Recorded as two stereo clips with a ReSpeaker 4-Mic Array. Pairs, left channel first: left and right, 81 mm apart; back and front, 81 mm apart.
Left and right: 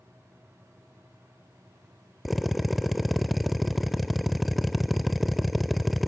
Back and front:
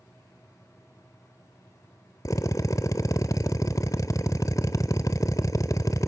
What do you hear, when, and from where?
2.2 s a drill: straight behind, 0.6 m